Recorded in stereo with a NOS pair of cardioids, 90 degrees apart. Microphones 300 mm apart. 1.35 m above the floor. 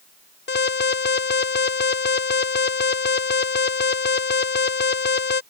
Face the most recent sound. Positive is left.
turn(degrees=40)